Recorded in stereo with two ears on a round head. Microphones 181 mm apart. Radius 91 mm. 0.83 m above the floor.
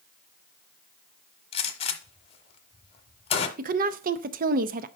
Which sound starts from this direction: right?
A woman speaking, at 3.6 s.